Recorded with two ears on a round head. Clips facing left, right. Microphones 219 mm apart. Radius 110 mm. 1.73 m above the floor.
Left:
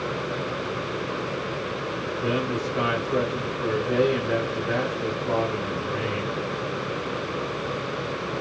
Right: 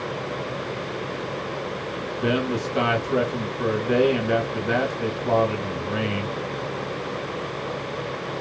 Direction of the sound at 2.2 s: 55° right (ahead or behind).